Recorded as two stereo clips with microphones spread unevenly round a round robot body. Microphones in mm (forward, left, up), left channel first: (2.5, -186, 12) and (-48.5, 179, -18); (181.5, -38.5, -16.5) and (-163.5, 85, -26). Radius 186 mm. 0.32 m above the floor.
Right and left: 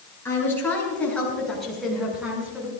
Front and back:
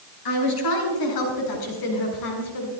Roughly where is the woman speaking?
Ahead.